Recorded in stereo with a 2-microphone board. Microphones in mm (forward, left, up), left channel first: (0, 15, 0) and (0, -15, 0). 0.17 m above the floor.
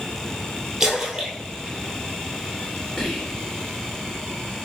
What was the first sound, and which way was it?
A splash, 15° right (ahead or behind).